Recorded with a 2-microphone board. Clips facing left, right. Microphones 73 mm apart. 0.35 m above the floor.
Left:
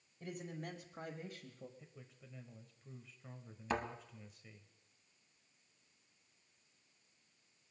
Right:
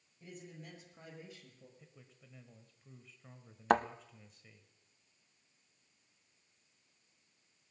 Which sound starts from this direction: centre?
A man speaking, at 1.8 s.